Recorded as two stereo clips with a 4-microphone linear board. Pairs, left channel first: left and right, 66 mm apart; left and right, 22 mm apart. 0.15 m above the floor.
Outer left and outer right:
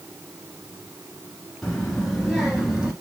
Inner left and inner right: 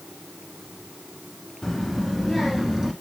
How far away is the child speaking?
About 1.4 m.